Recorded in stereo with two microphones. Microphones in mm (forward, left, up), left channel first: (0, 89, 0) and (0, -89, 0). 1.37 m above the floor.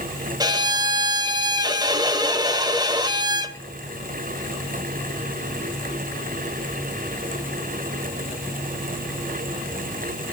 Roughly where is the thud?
I don't hear a thud.